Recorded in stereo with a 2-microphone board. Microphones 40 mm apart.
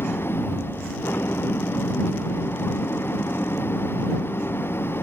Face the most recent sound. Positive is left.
turn(degrees=70)  # may be behind; listen again after turning